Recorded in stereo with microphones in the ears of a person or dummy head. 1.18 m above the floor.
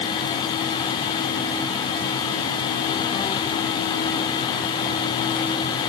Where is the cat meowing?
I don't hear a cat meowing.